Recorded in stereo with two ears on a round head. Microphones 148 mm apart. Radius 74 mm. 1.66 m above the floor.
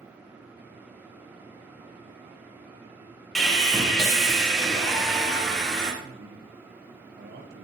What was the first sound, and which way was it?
Sawing, 5° left (ahead or behind).